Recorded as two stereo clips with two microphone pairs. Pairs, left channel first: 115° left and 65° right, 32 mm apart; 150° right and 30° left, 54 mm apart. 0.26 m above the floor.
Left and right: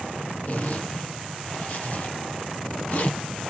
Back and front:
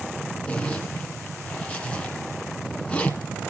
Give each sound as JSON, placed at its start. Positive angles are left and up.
{"t": 0.5, "sound": "a zipper", "azimuth_deg": 145, "distance_m": 2.5}